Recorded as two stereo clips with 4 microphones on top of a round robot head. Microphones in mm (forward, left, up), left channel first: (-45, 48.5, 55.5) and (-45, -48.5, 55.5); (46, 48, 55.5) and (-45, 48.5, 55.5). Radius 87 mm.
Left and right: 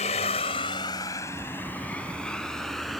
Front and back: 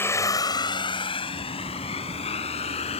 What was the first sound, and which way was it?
A vehicle, 65° left.